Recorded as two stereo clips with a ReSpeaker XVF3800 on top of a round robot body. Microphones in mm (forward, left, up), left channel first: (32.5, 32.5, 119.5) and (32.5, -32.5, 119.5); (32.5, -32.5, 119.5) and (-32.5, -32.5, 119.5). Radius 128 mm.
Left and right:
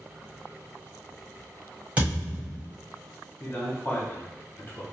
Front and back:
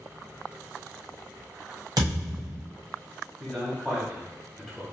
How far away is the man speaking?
About 1.3 m.